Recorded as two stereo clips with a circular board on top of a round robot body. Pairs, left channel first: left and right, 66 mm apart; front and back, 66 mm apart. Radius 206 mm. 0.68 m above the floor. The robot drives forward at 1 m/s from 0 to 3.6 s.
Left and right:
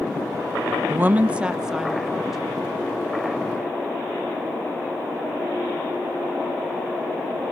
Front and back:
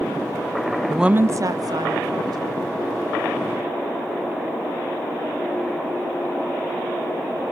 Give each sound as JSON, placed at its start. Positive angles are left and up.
{"t": 0.9, "sound": "a woman speaking", "azimuth_deg": -70, "distance_m": 0.5}